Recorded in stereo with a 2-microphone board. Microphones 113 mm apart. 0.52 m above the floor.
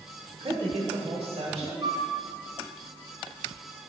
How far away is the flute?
About 1.4 m.